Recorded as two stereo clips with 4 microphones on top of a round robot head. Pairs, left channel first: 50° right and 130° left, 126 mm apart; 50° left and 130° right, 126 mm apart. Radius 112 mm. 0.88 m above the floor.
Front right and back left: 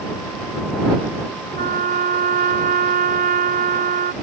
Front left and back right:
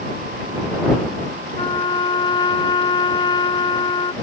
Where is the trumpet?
110° left.